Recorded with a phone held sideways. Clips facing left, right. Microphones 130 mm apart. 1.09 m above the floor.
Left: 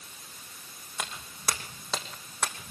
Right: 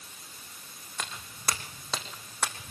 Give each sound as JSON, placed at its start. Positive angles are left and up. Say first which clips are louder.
{"t": 1.0, "sound": "footsteps", "louder": "left 1 dB", "side_deg": 5, "distance_m": 3.5}